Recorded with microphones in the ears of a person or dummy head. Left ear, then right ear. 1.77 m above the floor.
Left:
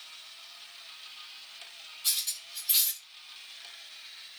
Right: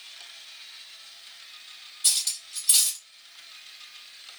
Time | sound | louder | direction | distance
2.0 | cutlery clinking | right 5 dB | 25° right (ahead or behind) | 2 m